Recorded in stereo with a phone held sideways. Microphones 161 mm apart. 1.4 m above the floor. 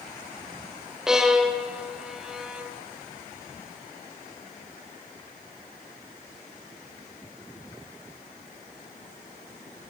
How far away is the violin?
About 3.5 m.